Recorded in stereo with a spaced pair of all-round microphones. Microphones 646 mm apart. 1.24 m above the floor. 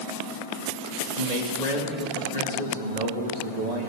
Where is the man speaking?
80° right, 2.5 m.